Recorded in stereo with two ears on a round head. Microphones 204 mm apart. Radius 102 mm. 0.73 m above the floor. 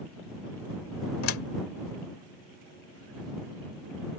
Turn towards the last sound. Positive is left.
turn(degrees=65)  # may be behind; listen again after turning